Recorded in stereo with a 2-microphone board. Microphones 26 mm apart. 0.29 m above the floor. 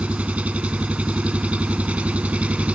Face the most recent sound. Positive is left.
turn(degrees=-65)  # may be behind; listen again after turning